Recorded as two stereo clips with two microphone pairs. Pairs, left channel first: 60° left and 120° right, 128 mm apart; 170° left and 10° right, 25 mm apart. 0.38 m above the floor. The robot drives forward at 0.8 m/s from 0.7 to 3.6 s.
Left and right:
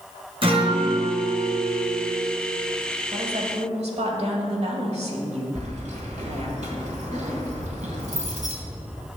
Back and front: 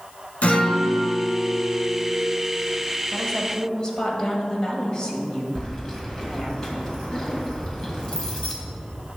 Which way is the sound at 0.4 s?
165° right.